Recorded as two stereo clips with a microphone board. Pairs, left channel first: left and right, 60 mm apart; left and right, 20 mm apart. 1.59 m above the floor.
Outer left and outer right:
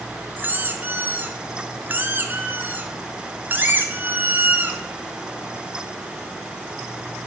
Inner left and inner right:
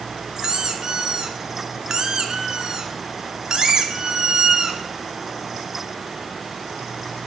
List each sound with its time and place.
0.4 s a squeak: 30° right (ahead or behind), 1.0 m